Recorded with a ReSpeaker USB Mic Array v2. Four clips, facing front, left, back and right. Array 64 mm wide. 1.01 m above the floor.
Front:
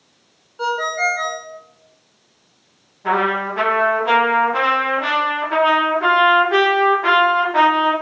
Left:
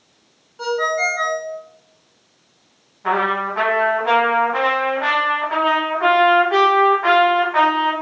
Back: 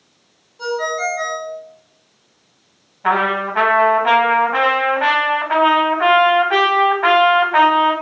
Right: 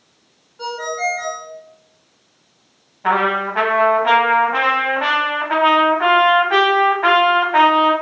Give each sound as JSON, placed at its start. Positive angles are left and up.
{"t": 0.6, "sound": "a ringtone", "azimuth_deg": 20, "distance_m": 1.8}
{"t": 3.0, "sound": "a trumpet", "azimuth_deg": -145, "distance_m": 1.5}